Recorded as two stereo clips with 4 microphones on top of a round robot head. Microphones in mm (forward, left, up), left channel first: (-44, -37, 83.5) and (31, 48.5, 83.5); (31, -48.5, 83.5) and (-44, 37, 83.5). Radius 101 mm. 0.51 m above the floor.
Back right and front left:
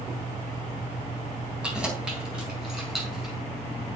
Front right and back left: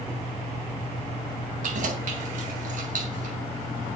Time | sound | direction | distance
1.6 | keys jangling | 130° left | 3 m